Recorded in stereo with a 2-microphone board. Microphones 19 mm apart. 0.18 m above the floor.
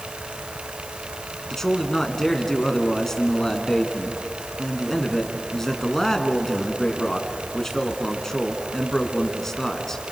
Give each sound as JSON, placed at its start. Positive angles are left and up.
{"t": 1.5, "sound": "a man speaking", "side_deg": 25, "distance_m": 2.5}